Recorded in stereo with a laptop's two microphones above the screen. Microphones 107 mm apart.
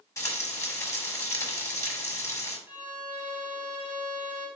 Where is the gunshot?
No gunshot in this recording.